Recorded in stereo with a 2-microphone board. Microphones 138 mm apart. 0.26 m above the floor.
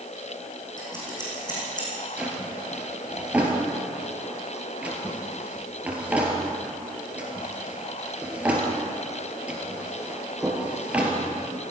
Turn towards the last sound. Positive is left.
turn(degrees=-10)  # may be behind; listen again after turning